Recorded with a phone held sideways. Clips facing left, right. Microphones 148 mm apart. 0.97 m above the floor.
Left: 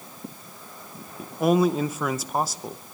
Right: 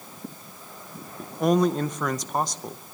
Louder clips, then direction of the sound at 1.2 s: Left 1 dB; 5° left (ahead or behind).